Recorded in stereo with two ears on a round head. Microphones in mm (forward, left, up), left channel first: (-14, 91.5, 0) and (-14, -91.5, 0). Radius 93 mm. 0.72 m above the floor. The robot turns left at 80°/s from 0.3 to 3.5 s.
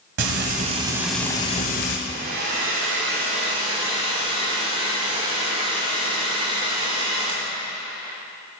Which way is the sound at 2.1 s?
35° right.